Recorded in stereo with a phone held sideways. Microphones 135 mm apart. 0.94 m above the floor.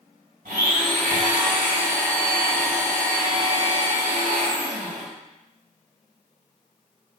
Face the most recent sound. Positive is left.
turn(degrees=-80)